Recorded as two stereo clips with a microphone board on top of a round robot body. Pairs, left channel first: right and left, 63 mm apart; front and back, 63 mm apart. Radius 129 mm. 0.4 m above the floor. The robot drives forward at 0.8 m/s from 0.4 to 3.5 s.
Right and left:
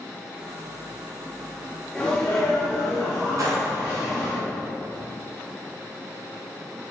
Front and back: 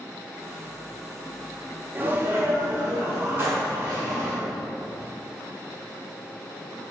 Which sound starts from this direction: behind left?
A gunshot, at 3.4 s.